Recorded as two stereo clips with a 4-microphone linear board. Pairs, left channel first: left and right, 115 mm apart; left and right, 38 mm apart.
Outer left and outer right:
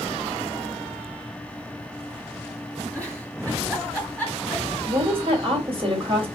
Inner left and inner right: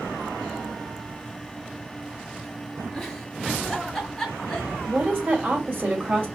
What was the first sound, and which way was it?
A giggle, 15° left (ahead or behind).